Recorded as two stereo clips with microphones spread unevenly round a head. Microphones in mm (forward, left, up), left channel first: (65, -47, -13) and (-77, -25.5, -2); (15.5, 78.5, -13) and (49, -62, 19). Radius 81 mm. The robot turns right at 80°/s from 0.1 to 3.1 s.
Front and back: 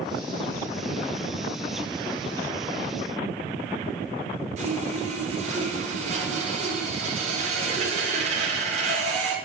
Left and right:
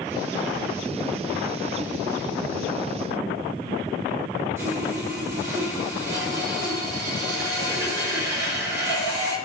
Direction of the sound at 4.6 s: 150° right.